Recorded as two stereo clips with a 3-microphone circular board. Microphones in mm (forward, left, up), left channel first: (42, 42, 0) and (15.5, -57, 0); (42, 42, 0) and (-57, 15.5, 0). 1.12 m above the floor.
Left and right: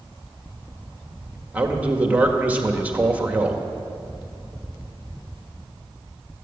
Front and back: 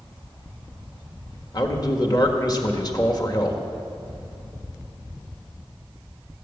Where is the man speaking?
30° right, 1.7 m.